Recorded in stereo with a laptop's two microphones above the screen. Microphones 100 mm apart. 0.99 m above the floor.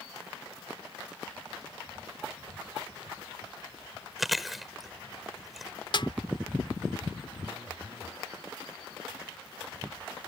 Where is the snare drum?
55° left (ahead or behind).